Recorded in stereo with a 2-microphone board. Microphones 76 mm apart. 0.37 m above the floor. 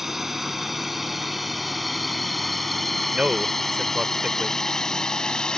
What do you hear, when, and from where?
0.0 s a drone: 5° right (ahead or behind); by 5.6 s 10° left (ahead or behind)
3.1 s a man speaking: 15° right (ahead or behind)